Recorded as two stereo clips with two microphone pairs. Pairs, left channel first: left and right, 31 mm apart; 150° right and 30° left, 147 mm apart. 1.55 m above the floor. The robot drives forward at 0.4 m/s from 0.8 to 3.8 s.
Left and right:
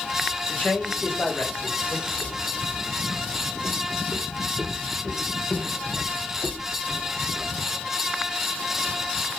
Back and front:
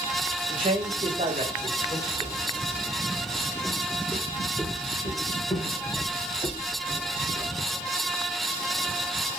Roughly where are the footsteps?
Ahead left.